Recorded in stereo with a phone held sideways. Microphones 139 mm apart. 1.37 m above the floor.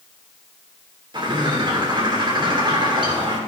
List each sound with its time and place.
1.1 s a bird: 35° right (ahead or behind), 2.5 m